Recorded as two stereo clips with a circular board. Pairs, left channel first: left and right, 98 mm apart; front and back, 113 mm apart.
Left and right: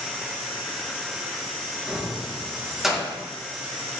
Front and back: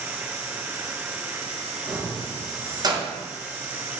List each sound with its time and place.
1.9 s keys jangling: 175° right, 0.6 m